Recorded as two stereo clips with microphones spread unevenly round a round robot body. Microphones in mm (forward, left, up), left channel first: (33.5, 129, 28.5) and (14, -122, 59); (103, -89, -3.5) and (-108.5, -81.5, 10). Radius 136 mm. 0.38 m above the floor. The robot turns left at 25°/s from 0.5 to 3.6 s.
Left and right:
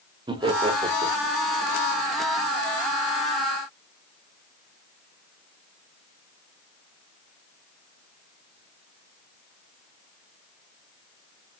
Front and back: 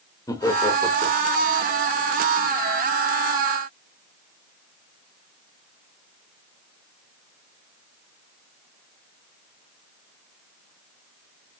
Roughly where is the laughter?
Ahead right.